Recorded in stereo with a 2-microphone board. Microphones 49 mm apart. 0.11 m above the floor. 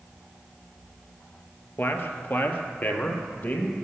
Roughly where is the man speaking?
Left.